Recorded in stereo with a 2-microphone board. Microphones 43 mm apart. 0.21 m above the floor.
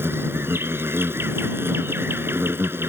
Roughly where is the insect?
Right.